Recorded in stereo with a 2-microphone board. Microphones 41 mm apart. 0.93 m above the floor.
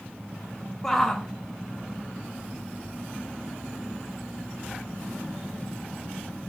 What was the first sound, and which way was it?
A shout, 10° left (ahead or behind).